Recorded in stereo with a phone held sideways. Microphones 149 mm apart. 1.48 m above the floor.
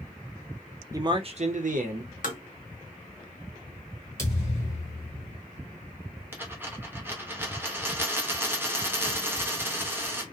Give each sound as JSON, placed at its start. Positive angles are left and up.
{"t": 0.9, "sound": "a man speaking", "side_deg": -20, "distance_m": 0.6}
{"t": 2.2, "sound": "tapping", "side_deg": 65, "distance_m": 0.8}
{"t": 4.2, "sound": "a thud", "side_deg": 20, "distance_m": 1.5}
{"t": 6.3, "sound": "a dropped coin", "side_deg": -15, "distance_m": 0.8}